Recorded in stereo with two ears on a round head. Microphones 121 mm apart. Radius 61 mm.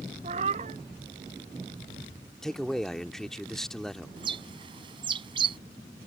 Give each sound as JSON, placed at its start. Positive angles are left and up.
{"t": 0.2, "sound": "a cat meowing", "side_deg": -50}
{"t": 2.4, "sound": "a man speaking", "side_deg": 5}
{"t": 4.2, "sound": "a bird", "side_deg": -40}